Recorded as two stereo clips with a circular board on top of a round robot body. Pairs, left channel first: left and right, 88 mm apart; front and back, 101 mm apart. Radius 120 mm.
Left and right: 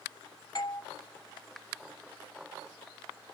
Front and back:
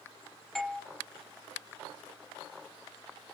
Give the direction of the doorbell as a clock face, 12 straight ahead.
9 o'clock.